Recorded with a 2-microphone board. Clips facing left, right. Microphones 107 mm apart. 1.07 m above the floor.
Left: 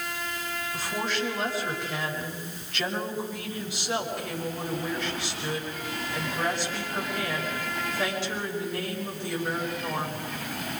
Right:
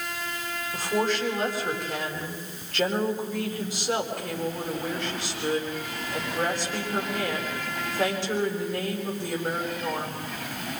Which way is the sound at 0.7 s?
45° right (ahead or behind).